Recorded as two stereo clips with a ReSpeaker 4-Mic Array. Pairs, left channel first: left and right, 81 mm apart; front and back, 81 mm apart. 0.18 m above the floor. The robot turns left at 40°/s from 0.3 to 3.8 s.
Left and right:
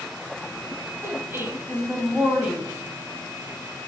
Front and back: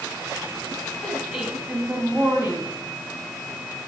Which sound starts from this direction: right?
A woman speaking, at 1.0 s.